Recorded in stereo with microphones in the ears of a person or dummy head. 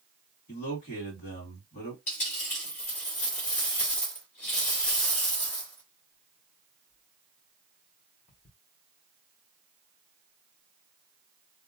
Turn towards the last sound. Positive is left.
turn(degrees=30)  # may be behind; listen again after turning